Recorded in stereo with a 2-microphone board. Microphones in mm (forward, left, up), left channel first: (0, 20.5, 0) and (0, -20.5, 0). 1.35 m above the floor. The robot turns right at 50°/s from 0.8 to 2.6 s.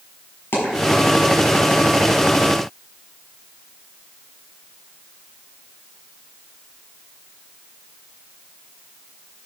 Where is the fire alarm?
I don't hear a fire alarm.